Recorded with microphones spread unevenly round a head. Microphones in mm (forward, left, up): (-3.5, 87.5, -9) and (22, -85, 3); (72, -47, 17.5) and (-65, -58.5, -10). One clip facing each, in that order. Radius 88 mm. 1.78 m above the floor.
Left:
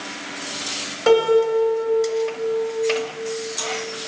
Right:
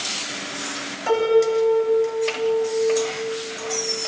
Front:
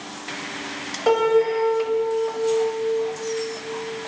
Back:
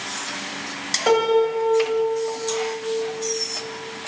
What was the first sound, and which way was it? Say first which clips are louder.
A piano: left 2 dB, even; 90° left.